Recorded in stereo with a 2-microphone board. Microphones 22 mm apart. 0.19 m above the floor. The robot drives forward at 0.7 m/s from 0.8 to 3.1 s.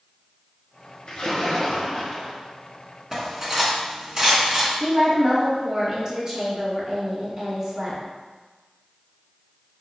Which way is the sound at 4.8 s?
40° right (ahead or behind).